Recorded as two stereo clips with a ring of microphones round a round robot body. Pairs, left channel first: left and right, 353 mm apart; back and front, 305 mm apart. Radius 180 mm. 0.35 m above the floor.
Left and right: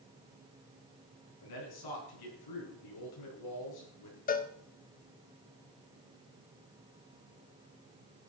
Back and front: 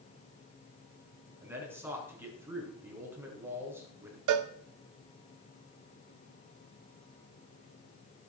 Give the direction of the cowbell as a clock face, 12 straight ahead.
11 o'clock.